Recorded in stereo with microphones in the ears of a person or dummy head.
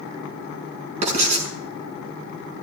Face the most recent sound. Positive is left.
turn(degrees=-45)  # may be behind; listen again after turning